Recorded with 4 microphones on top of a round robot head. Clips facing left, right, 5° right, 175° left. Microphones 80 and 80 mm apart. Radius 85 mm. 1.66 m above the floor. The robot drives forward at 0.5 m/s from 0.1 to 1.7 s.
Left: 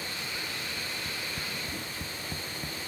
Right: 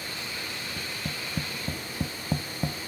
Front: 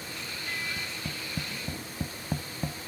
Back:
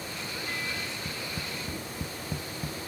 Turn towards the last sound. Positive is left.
turn(degrees=-75)